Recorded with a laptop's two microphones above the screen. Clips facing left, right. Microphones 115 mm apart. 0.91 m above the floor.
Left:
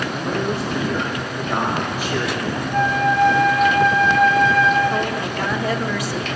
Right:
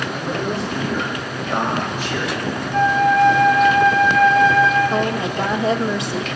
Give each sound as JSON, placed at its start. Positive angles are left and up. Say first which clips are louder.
{"t": 0.1, "sound": "a man speaking", "louder": "even", "side_deg": 15, "distance_m": 5.0}
{"t": 2.7, "sound": "a flute", "louder": "right 3 dB", "side_deg": 5, "distance_m": 1.8}
{"t": 4.9, "sound": "a woman speaking", "louder": "right 2 dB", "side_deg": -20, "distance_m": 0.9}